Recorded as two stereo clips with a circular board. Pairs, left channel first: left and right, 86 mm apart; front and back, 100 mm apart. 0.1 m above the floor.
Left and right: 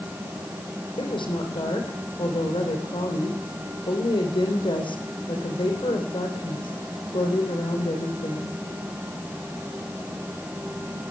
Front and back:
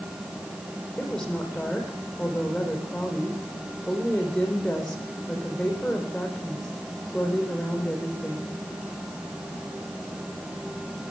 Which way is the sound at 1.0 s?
85° left.